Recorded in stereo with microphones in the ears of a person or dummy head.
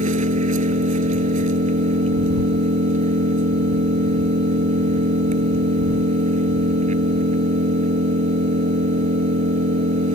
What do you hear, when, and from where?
0.0 s an engine running: 40° right (ahead or behind)